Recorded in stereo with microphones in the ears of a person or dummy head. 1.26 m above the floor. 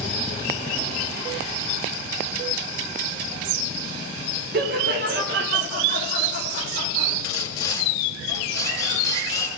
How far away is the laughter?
About 1.0 m.